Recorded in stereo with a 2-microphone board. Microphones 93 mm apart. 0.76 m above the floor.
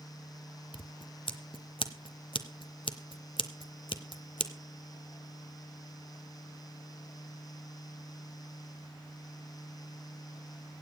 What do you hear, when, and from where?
0.7 s scissors: 65° left (ahead or behind), 1.0 m